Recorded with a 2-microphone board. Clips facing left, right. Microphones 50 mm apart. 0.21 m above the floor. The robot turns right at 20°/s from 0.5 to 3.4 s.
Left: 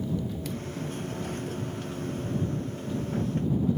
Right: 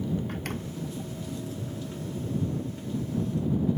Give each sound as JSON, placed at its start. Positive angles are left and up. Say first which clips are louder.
{"t": 0.3, "sound": "a door slam", "louder": "even", "side_deg": -50}